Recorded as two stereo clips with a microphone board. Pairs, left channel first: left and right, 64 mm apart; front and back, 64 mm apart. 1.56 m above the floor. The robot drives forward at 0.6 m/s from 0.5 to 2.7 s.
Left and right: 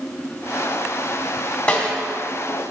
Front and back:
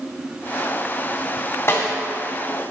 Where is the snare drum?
35° left, 1.6 m; by 1.9 s 40° left, 1.5 m.